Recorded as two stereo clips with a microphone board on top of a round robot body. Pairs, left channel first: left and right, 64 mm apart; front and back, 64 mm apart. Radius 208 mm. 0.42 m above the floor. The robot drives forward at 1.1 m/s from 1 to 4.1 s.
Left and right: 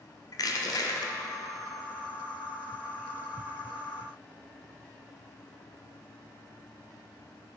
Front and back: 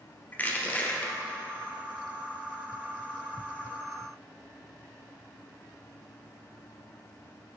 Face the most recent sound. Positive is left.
turn(degrees=165)